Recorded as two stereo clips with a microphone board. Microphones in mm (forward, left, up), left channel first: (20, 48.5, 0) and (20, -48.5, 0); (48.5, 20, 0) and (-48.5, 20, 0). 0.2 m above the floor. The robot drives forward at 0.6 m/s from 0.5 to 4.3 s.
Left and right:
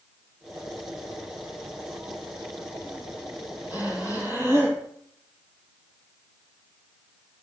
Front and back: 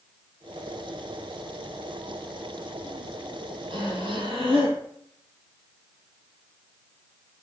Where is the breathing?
160° right, 8 m; by 4.8 s 165° right, 8 m.